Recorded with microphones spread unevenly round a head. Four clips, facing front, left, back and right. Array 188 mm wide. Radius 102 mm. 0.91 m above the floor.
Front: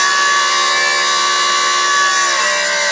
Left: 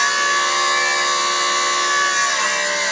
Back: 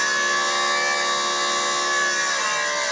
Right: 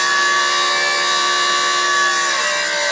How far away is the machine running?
About 2.5 m.